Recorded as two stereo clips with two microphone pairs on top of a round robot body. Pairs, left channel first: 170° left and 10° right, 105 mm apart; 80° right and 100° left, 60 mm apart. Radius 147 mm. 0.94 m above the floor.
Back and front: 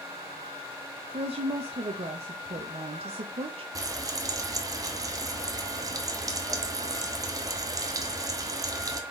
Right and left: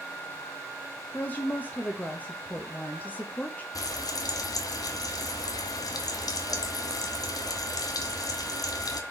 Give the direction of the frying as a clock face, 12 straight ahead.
2 o'clock.